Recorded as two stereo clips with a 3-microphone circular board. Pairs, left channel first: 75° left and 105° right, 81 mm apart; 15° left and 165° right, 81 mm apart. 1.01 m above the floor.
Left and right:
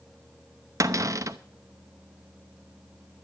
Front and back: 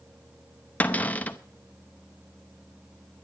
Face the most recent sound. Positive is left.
turn(degrees=-55)